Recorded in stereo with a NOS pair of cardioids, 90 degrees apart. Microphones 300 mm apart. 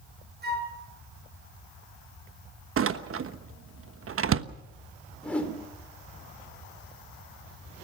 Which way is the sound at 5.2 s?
5° left.